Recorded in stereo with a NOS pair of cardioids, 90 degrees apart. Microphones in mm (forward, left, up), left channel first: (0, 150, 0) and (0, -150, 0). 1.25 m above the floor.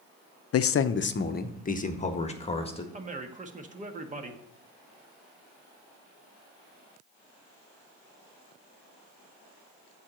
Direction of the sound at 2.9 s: 25° right.